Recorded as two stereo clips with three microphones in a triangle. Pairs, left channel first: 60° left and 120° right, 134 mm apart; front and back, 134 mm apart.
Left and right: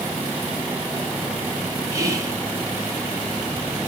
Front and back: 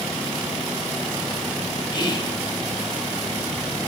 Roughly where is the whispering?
Ahead right.